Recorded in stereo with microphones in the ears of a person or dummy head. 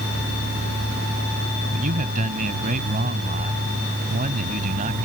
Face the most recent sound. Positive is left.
turn(degrees=-45)  # may be behind; listen again after turning